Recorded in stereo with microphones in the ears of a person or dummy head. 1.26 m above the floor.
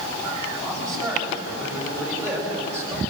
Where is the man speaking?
25° right (ahead or behind), 9.5 m; by 3.0 s 15° right (ahead or behind), 7 m.